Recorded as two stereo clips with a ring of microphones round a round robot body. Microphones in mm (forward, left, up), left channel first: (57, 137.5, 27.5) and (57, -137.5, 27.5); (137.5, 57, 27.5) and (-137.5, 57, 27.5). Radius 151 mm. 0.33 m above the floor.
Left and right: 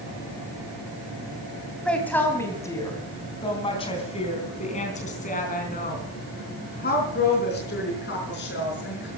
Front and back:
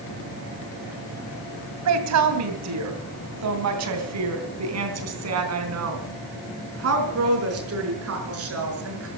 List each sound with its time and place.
1.9 s a woman speaking: 175° left, 2.5 m; by 9.1 s 145° left, 5.5 m